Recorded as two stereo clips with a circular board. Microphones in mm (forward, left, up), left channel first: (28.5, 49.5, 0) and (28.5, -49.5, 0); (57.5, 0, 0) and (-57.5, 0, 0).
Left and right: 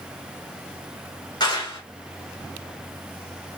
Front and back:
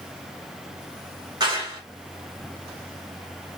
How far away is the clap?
About 2.5 m.